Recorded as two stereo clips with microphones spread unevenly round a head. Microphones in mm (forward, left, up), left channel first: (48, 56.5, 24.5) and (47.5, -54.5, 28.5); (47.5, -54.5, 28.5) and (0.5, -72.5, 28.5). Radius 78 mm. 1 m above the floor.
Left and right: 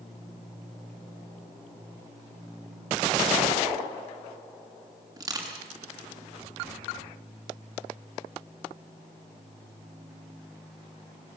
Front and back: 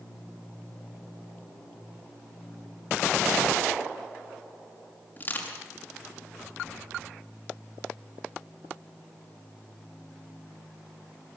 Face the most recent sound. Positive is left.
turn(degrees=-30)